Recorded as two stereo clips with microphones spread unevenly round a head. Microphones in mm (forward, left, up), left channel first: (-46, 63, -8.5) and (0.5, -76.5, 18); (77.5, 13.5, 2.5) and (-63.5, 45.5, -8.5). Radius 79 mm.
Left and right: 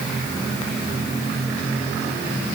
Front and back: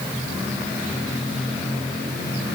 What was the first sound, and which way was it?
Only background noise.